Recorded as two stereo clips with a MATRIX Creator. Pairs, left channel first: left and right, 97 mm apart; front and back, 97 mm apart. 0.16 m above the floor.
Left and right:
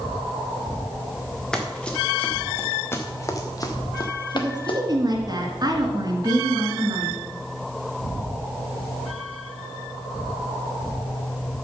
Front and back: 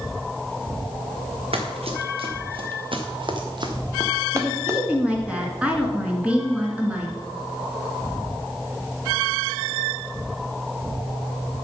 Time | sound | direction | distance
1.5 | running footsteps | 170° left | 2.0 m
4.3 | a woman speaking | 110° right | 2 m